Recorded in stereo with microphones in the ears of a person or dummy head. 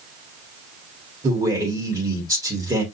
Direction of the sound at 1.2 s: 15° right (ahead or behind).